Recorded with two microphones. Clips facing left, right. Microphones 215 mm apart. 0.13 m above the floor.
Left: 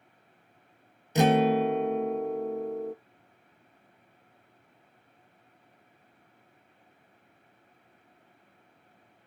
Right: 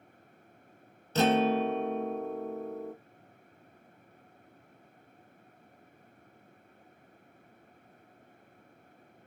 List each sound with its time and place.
1.1 s a guitar: 15° left (ahead or behind), 0.5 m